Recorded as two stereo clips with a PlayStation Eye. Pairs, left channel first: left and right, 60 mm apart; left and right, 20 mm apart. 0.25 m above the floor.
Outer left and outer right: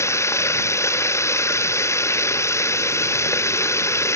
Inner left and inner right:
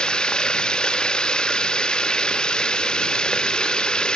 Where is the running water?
50° left (ahead or behind).